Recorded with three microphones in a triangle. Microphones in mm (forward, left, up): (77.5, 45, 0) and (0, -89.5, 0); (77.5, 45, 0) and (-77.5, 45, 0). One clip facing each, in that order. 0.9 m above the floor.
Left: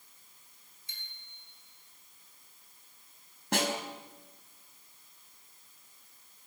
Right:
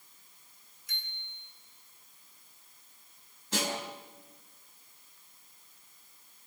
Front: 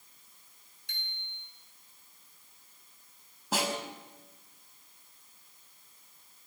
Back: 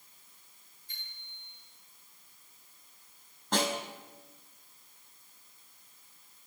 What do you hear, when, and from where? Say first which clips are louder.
0.9 s a bicycle bell: right 6 dB, front 6 dB; straight ahead, 7.5 m
3.5 s a snare drum: left 3 dB, back 1 dB; 85° left, 4.5 m